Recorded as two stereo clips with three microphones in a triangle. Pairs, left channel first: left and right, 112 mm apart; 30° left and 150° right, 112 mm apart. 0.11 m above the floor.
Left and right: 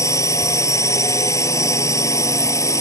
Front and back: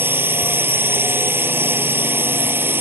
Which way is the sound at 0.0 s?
145° left.